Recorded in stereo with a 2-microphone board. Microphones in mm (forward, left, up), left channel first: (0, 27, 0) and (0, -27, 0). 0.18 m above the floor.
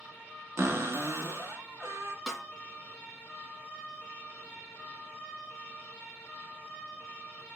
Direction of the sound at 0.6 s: 55° right (ahead or behind).